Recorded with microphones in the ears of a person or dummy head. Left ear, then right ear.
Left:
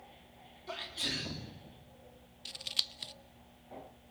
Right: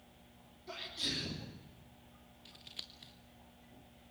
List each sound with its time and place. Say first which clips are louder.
0.7 s a sneeze: left 2 dB; 30° left (ahead or behind), 3.5 m
2.5 s scissors: left 14 dB; 40° left (ahead or behind), 0.6 m